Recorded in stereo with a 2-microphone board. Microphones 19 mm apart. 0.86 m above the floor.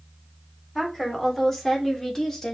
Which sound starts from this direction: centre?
A woman speaking, at 0.8 s.